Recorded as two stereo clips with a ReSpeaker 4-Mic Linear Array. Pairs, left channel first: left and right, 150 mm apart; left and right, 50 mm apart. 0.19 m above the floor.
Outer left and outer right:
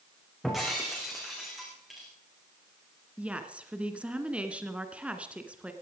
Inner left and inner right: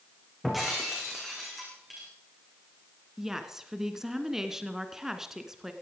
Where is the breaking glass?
Centre (ahead or behind), 6.5 m.